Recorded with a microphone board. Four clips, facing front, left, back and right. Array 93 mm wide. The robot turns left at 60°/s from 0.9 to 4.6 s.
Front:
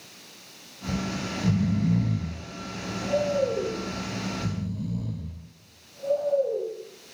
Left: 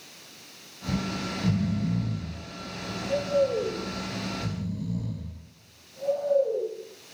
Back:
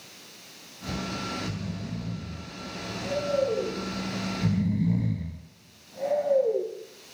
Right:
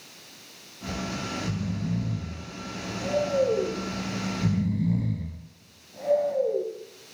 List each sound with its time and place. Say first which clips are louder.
0.9 s snoring: left 2 dB, front 2 dB; 65° left, 4.5 m; by 6.7 s 155° right, 4.5 m